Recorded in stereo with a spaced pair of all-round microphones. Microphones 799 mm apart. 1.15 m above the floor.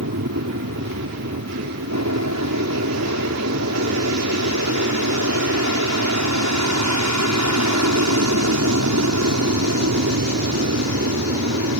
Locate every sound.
0.0 s an aircraft: 20° right (ahead or behind)